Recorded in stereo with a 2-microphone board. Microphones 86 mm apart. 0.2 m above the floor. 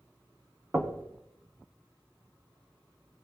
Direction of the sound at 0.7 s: 25° right (ahead or behind).